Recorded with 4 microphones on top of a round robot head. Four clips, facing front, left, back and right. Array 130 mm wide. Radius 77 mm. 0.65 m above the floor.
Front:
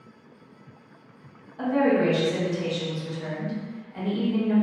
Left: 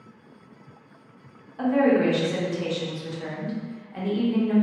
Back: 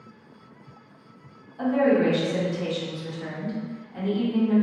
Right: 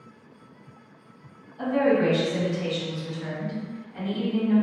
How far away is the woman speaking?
About 1.2 m.